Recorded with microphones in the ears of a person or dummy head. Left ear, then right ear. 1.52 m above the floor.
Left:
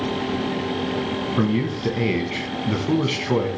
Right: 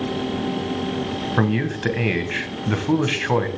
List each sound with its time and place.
1.4 s a man speaking: 35° right (ahead or behind), 1.0 m